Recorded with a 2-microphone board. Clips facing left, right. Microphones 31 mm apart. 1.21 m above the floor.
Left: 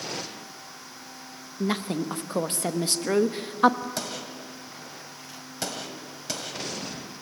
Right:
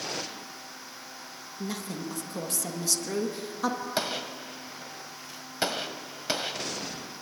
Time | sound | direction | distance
1.6 | a woman speaking | 35° left (ahead or behind) | 1.2 m
4.0 | a gunshot | 25° right (ahead or behind) | 1.1 m